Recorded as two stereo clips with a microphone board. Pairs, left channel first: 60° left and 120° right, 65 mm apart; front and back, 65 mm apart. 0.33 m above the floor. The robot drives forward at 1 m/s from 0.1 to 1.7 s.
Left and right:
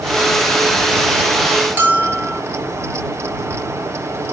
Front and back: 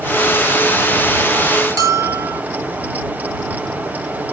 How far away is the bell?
About 1.6 m.